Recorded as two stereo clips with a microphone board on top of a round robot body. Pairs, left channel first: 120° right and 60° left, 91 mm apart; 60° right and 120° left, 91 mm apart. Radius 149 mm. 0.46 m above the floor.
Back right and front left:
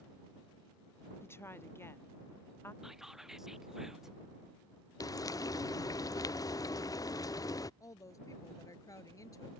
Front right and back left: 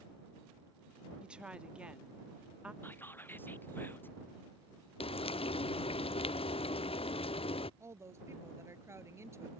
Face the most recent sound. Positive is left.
turn(degrees=-175)